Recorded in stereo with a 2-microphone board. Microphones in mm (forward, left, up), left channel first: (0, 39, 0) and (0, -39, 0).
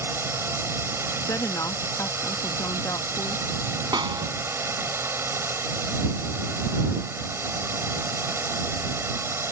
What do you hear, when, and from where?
0.0 s a drone: 30° right (ahead or behind)
1.3 s a woman speaking: 45° left (ahead or behind)
3.9 s a snare drum: 70° right (ahead or behind)